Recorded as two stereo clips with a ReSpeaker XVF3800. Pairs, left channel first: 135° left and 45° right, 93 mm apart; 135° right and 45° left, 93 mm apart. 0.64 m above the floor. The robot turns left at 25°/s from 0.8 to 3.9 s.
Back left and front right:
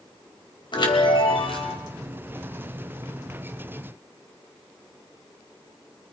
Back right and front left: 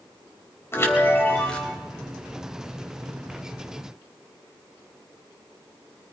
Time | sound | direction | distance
0.7 | a chime | 165° left | 3 m